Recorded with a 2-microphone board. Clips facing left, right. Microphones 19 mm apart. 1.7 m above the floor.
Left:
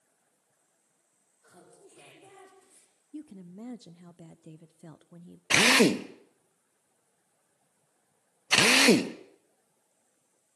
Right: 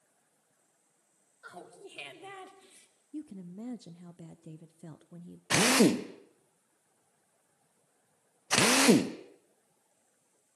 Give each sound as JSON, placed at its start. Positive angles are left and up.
{"t": 1.4, "sound": "laughter", "side_deg": -65, "distance_m": 5.0}
{"t": 3.1, "sound": "a woman speaking", "side_deg": 5, "distance_m": 0.7}
{"t": 5.5, "sound": "a drill", "side_deg": 30, "distance_m": 0.7}